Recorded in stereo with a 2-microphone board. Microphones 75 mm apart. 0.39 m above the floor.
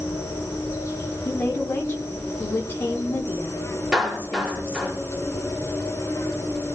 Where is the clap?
10° right (ahead or behind), 5 m.